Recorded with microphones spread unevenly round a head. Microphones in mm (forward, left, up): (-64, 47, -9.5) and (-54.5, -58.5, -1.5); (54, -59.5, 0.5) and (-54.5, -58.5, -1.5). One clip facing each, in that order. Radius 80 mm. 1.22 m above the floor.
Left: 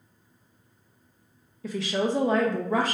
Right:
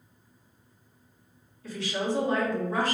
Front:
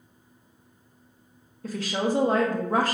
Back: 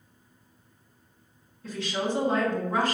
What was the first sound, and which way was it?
A woman speaking, 65° left.